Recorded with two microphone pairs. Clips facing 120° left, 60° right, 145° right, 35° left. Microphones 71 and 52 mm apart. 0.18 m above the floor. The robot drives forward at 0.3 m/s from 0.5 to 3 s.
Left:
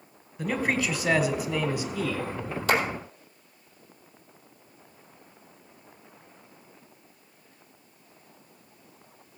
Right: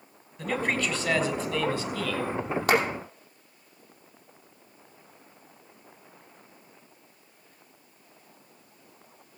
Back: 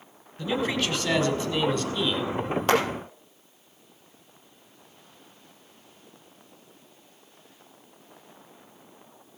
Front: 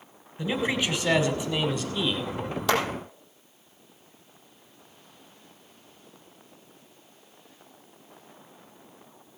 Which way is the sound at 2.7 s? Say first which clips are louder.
Right 1 dB, back 2 dB; 100° right.